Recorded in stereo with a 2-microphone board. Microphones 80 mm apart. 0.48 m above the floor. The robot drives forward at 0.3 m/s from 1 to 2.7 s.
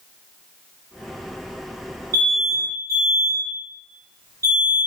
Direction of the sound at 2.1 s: 40° right (ahead or behind).